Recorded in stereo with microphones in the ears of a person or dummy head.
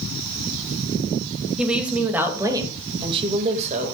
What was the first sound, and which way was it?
A woman speaking, centre (ahead or behind).